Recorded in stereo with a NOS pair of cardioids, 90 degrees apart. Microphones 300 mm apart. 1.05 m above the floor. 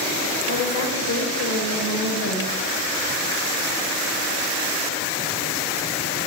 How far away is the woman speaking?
About 5.5 m.